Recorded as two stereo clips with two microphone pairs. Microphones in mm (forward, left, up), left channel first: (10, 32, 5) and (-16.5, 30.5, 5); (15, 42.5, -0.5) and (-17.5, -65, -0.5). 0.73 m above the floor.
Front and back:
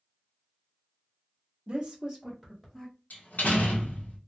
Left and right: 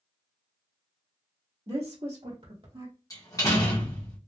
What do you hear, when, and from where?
1.7 s a woman speaking: 130° right, 1.3 m; by 2.9 s 60° right, 2.0 m
3.1 s a door slam: 15° left, 1.1 m